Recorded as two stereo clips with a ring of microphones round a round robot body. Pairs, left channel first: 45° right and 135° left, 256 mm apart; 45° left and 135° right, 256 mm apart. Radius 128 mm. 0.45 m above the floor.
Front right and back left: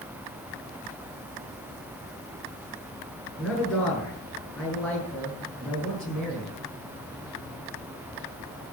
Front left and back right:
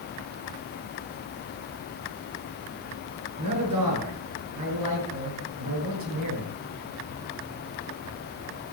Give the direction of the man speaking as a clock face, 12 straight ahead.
4 o'clock.